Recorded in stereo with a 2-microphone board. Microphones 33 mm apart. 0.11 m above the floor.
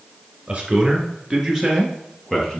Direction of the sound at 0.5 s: 30° right (ahead or behind).